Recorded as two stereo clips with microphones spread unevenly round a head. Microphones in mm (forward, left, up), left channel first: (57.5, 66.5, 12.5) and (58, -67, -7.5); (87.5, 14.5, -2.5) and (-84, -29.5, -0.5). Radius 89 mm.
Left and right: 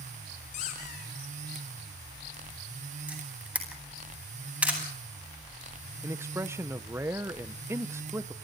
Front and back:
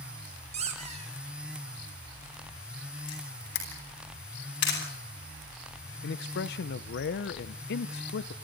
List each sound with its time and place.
0.5 s a squeak: 140° left, 5.5 m
3.1 s a camera shutter: 10° right, 10 m
6.0 s a man speaking: 15° right, 0.6 m